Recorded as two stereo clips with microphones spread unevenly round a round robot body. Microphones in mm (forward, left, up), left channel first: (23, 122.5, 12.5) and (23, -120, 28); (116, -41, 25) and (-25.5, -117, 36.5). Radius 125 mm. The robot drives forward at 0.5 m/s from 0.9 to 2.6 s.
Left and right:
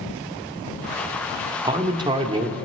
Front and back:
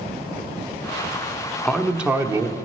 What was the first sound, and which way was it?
A man speaking, 35° right.